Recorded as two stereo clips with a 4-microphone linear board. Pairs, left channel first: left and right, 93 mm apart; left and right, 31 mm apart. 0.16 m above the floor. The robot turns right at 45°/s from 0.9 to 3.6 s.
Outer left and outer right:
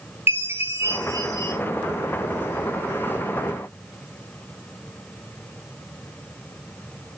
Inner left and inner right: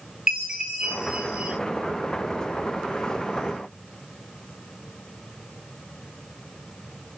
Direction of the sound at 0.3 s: 25° right (ahead or behind).